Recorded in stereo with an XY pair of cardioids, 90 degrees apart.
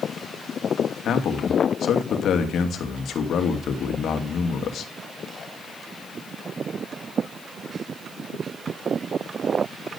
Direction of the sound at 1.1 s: 70° left.